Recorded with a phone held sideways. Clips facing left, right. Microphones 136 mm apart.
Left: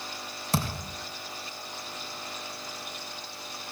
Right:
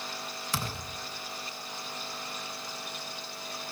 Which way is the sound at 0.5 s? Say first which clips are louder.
Left 7 dB; 40° left (ahead or behind).